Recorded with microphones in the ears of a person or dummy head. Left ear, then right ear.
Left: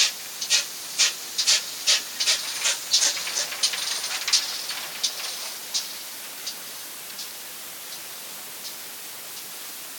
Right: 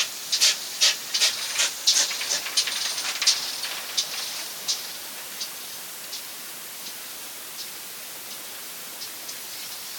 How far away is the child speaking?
No child speaking in this recording.